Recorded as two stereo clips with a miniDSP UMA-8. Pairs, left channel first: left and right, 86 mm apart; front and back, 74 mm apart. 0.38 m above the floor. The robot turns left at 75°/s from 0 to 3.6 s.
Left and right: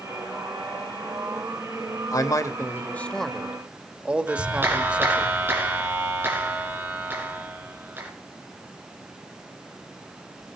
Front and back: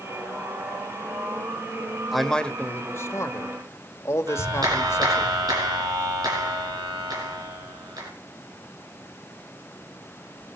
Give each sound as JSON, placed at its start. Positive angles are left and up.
{"t": 2.1, "sound": "a man speaking", "azimuth_deg": 90, "distance_m": 1.2}
{"t": 4.3, "sound": "a clap", "azimuth_deg": -155, "distance_m": 4.0}